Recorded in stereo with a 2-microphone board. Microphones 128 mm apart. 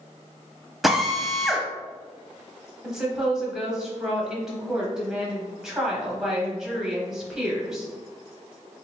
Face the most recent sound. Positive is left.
turn(degrees=-5)  # may be behind; listen again after turning